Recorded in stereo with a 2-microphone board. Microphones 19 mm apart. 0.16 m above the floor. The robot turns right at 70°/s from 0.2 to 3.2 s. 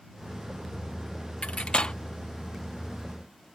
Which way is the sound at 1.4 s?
85° left.